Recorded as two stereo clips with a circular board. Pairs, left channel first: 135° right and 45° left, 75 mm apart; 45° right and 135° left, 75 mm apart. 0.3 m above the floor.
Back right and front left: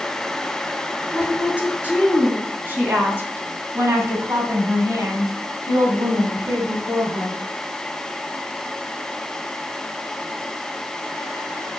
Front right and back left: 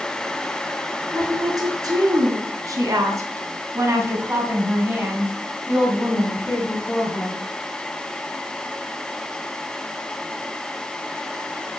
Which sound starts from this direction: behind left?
A woman speaking, at 1.1 s.